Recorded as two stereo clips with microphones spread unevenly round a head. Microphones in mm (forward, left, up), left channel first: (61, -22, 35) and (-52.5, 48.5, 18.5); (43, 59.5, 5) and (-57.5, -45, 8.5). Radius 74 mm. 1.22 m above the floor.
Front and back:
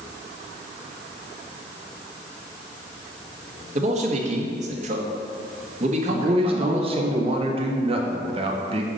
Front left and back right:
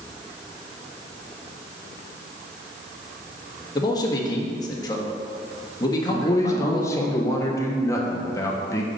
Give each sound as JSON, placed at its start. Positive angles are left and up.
{"t": 3.8, "sound": "a man speaking", "azimuth_deg": 110, "distance_m": 1.5}
{"t": 6.1, "sound": "a man speaking", "azimuth_deg": 115, "distance_m": 1.2}